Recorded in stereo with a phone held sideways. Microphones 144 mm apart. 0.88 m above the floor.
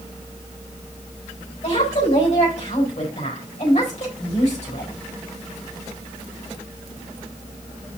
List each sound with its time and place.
1.6 s a woman speaking: 55° left (ahead or behind), 4.5 m